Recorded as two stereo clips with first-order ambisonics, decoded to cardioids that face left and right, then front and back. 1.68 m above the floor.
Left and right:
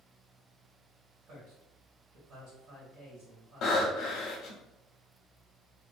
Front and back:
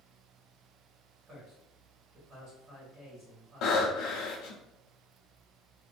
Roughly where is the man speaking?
Behind right.